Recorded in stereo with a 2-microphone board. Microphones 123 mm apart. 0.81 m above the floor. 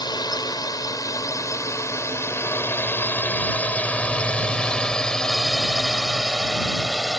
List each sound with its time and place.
0.0 s a drone: 35° left (ahead or behind); by 7.2 s 5° right (ahead or behind)